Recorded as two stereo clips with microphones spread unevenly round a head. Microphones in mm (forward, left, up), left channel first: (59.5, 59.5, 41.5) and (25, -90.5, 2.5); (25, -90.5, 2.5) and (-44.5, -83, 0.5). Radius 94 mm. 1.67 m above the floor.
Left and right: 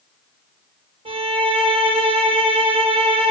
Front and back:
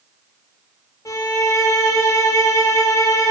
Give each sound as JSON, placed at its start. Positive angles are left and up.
{"t": 1.1, "sound": "a violin", "azimuth_deg": -45, "distance_m": 2.0}